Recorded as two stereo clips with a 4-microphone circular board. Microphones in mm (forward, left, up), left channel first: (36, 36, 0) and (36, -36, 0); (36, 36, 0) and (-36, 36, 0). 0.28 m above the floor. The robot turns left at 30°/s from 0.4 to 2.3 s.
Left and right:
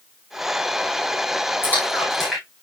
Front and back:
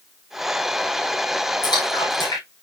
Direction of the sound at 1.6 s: 25° left.